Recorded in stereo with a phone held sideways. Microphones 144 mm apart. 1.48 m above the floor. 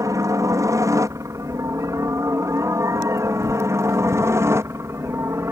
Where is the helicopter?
20° right (ahead or behind).